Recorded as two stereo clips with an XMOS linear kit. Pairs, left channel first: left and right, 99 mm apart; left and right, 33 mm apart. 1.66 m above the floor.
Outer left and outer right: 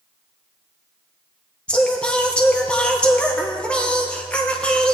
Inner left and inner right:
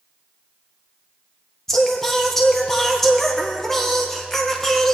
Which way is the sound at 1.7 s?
10° left (ahead or behind).